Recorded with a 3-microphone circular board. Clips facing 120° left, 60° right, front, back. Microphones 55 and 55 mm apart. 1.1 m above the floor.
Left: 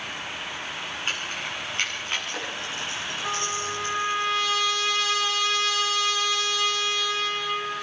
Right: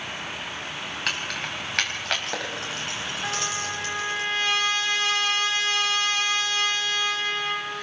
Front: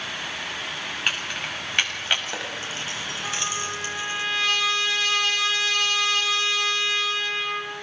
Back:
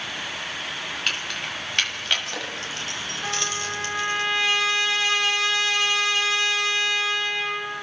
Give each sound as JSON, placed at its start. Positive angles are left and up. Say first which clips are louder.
{"t": 1.1, "sound": "keys jangling", "louder": "right 2 dB, front 2 dB", "azimuth_deg": -75, "distance_m": 6.0}
{"t": 3.2, "sound": "a trumpet", "louder": "left 1 dB, back 2 dB", "azimuth_deg": -110, "distance_m": 6.5}